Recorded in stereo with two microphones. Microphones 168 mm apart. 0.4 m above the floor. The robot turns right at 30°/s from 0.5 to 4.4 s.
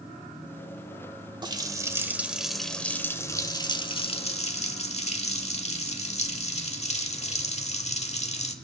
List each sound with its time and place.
1.4 s a running tap: 35° right, 1.0 m; by 8.5 s 55° left, 1.0 m